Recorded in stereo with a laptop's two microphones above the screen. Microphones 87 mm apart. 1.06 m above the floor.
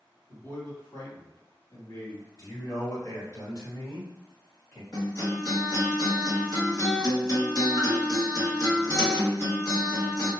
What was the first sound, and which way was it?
A man speaking, 40° left (ahead or behind).